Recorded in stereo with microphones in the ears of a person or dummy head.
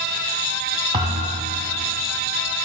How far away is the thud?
About 1.1 m.